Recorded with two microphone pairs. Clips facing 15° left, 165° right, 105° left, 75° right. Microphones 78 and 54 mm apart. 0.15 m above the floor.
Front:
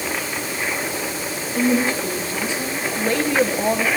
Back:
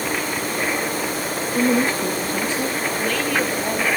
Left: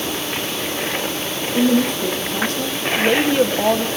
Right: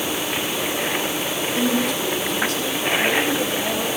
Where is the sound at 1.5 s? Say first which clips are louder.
Even, left 6 dB; 155° left, 6 m.